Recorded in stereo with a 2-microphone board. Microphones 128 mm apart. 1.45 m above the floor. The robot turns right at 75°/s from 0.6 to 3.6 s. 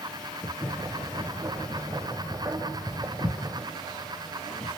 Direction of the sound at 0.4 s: 15° left (ahead or behind).